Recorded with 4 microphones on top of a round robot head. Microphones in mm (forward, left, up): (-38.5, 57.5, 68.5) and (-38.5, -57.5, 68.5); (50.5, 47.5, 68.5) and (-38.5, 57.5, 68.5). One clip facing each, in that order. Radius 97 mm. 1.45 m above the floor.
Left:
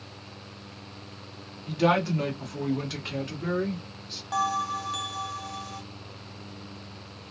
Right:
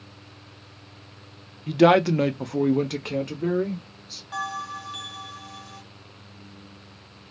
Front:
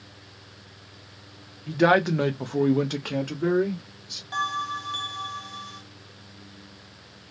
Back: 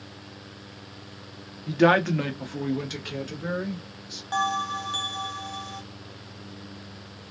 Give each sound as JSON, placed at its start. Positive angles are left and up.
{"t": 1.7, "sound": "a man speaking", "azimuth_deg": -100, "distance_m": 0.7}
{"t": 4.3, "sound": "a bell", "azimuth_deg": 130, "distance_m": 1.0}